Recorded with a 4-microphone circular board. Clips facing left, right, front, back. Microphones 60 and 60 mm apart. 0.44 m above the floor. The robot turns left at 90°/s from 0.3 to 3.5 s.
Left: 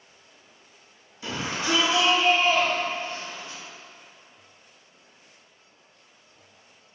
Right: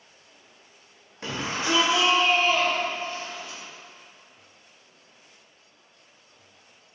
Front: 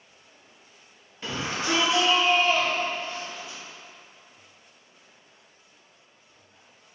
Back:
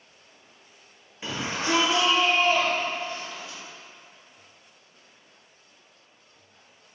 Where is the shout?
100° right, 1.2 m; by 3.6 s 50° left, 1.2 m.